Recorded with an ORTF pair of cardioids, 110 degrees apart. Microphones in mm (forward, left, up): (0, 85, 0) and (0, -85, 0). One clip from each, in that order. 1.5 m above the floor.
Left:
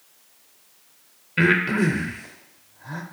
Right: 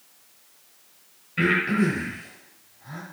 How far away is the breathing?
About 0.5 m.